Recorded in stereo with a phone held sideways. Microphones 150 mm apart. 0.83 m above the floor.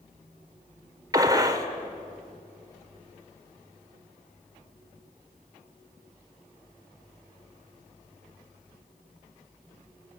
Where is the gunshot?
25° right (ahead or behind), 1.7 m.